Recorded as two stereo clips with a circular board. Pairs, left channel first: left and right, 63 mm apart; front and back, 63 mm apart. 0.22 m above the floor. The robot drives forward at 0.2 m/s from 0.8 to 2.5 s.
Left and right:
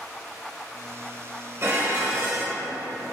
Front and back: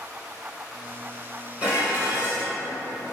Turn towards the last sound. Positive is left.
turn(degrees=-120)